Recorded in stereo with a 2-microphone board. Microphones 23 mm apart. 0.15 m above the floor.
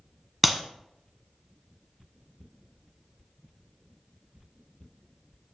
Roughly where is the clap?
Centre.